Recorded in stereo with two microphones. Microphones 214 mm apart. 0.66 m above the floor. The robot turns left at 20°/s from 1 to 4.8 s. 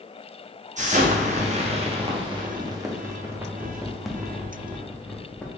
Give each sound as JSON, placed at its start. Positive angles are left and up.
{"t": 0.8, "sound": "an explosion", "side_deg": -35, "distance_m": 0.6}